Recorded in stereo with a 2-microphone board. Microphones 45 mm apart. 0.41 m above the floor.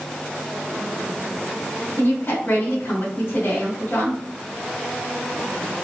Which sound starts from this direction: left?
A woman speaking, at 2.0 s.